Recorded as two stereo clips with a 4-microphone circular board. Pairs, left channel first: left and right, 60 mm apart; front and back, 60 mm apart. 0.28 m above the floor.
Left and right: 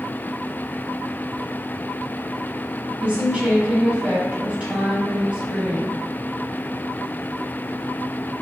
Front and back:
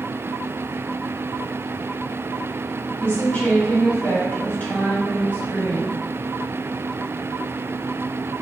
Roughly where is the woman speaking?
Ahead right.